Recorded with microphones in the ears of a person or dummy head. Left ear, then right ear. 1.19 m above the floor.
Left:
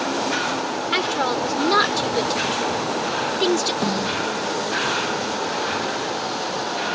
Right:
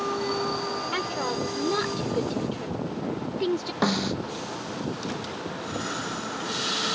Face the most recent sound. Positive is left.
turn(degrees=-30)  # may be behind; listen again after turning